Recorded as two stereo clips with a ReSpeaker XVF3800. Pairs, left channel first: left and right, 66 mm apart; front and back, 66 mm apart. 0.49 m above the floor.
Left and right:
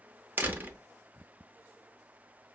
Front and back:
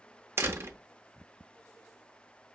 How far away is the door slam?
About 0.6 m.